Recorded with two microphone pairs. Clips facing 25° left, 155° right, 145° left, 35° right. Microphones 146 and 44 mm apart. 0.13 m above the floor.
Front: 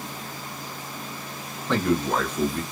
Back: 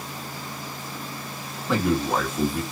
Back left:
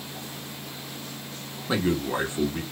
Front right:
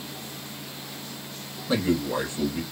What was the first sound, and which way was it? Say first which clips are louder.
A man speaking: even, front right 1 dB; 130° left.